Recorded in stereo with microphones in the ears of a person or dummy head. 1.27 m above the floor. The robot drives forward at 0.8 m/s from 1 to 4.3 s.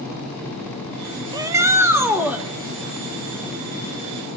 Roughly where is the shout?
Right.